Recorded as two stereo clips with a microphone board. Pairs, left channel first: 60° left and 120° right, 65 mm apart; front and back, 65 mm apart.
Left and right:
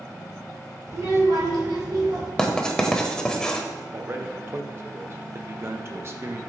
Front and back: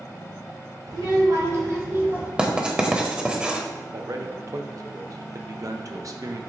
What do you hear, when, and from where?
0.9 s a child speaking: 165° right, 2.5 m; by 2.3 s 115° right, 2.5 m
2.4 s writing: 120° left, 1.0 m
3.9 s a man speaking: 165° right, 0.8 m